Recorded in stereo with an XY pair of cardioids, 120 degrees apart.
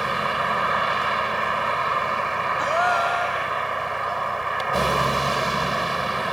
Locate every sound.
0.0 s a vehicle: 15° right
2.6 s a gasp: 5° left